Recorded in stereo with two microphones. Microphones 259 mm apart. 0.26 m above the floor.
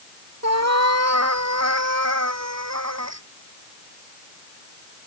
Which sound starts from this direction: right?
A cat meowing, at 0.4 s.